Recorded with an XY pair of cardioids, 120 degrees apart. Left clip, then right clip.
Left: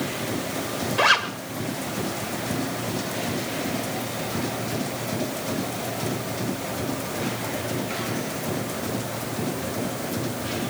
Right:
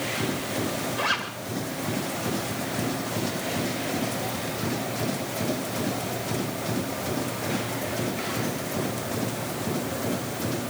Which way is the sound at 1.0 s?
45° left.